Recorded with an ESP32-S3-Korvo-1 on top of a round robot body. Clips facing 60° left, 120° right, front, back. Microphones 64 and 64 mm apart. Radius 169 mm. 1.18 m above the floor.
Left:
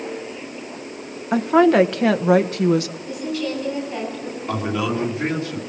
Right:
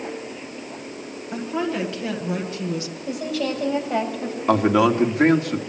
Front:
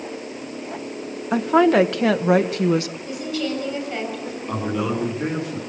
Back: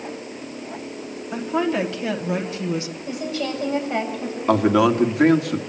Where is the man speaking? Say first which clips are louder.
Right 7 dB, back 8 dB; 155° right, 2.5 m.